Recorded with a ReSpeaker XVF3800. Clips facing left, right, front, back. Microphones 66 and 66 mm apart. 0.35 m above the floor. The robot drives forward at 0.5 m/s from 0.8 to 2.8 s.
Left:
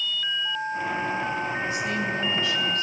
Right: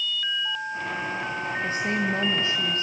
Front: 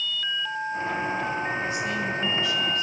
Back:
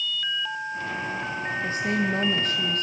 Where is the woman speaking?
135° right, 1.5 m; by 2.8 s 150° right, 1.9 m.